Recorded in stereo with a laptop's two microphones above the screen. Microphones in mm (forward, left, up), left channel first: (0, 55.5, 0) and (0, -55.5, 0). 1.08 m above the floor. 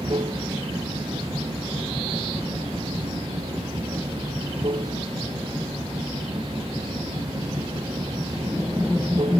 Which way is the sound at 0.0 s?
60° right (ahead or behind).